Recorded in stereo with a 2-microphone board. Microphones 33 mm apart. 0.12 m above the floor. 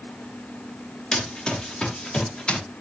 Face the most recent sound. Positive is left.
turn(degrees=30)  # may be behind; listen again after turning